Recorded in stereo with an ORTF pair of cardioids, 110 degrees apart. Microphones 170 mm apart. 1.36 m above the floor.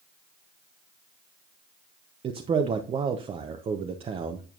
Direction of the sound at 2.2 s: 35° right.